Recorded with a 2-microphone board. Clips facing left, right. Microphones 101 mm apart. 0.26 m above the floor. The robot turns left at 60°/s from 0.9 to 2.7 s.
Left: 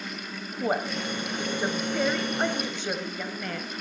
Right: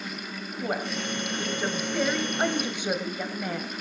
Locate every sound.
0.6 s a woman speaking: 25° left (ahead or behind), 1.6 m; by 3.7 s 15° right (ahead or behind), 1.6 m